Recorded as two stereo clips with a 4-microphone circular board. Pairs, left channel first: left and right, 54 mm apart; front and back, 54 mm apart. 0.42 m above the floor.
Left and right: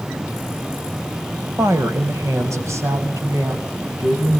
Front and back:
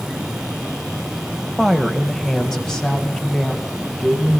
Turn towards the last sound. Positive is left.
turn(degrees=-75)